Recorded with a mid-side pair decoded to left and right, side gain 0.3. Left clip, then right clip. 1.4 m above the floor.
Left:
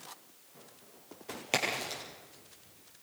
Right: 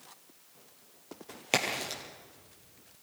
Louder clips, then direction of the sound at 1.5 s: Right 2 dB; 40° right.